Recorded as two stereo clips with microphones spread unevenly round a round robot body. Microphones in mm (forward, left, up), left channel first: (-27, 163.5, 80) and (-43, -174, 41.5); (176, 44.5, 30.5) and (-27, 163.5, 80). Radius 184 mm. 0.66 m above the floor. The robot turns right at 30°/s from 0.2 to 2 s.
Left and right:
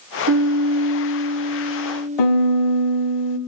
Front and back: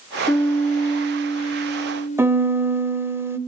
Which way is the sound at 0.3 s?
95° right.